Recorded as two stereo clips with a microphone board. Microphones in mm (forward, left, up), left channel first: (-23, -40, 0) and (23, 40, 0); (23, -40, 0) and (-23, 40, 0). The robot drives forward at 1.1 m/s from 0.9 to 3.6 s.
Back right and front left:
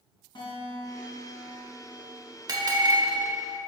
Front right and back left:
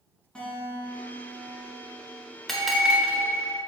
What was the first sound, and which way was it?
A guitar, 140° right.